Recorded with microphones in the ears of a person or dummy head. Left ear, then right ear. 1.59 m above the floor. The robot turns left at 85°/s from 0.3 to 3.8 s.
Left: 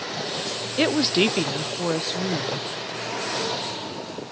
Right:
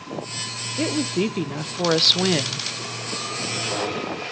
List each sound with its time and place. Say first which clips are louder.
0.8 s a woman speaking: left 4 dB; 80° left, 0.7 m; by 2.7 s 85° right, 0.7 m